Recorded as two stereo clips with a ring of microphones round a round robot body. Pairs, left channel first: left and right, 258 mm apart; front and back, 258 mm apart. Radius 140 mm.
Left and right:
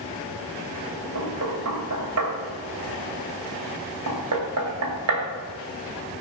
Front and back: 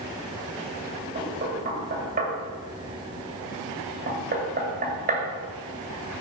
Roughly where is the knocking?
Behind right.